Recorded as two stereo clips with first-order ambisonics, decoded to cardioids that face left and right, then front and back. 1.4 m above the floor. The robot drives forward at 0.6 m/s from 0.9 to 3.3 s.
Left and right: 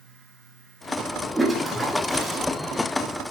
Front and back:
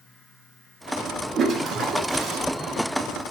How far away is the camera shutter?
I don't hear a camera shutter.